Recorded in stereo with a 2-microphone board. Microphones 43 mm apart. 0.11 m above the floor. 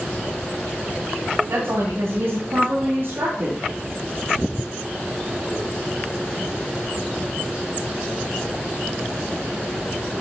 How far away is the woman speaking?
About 6 m.